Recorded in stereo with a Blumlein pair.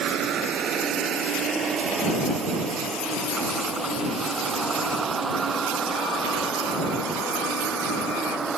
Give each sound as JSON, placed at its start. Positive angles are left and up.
{"t": 0.0, "sound": "a vehicle", "azimuth_deg": -30}